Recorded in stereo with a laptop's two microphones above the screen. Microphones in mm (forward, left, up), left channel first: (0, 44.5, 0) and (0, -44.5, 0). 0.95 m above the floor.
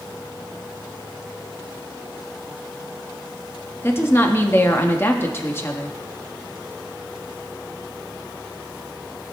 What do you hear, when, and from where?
3.8 s a woman speaking: 25° left (ahead or behind), 1.3 m